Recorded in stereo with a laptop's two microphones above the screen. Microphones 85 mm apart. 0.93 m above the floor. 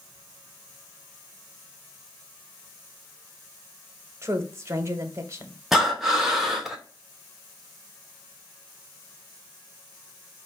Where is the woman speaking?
35° right (ahead or behind), 0.8 m.